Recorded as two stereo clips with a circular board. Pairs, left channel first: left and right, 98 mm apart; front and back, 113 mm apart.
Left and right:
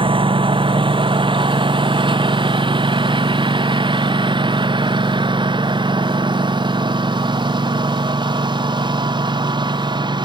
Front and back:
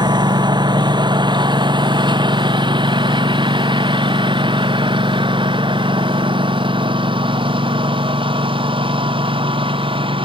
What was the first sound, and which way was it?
A lawn mower, 125° right.